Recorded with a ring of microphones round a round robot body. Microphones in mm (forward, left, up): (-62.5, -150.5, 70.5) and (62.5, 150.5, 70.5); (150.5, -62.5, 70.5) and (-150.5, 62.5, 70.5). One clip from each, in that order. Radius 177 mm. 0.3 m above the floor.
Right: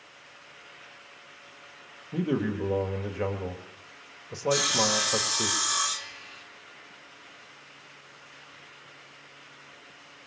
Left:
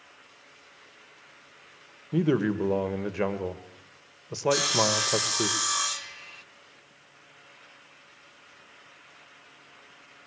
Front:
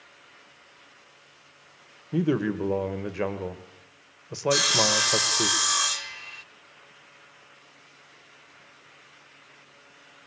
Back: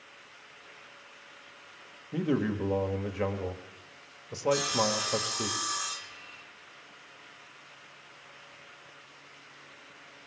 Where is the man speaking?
35° left, 1.4 m.